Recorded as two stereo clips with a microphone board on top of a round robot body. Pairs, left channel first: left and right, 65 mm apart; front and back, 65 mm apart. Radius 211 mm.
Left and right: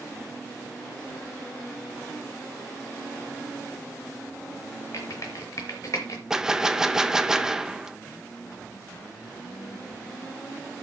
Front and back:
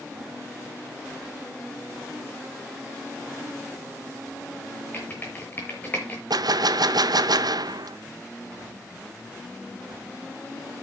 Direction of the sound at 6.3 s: 170° right.